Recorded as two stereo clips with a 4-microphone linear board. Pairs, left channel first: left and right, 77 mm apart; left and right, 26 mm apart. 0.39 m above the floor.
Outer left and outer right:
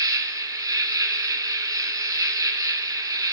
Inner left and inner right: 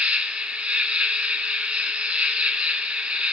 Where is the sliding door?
No sliding door in this recording.